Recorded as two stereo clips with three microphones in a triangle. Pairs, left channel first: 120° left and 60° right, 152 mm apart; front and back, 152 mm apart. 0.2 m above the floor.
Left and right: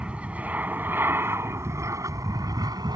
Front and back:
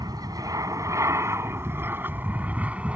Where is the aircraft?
140° right; by 3.0 s 105° right.